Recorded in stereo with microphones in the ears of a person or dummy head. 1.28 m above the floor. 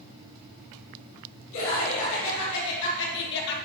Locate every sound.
1.5 s laughter: 75° left (ahead or behind), 3.5 m; by 3.6 s 60° left (ahead or behind), 1.0 m